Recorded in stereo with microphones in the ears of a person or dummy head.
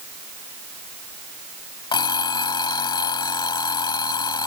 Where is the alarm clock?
25° left (ahead or behind).